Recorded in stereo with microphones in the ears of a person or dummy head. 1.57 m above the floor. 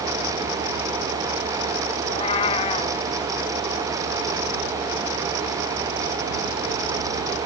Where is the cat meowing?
30° left (ahead or behind).